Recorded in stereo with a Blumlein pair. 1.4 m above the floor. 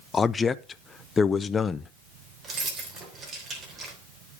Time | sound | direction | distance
0.1 | a man speaking | 15° left | 0.6 m
2.4 | keys jangling | 20° right | 3 m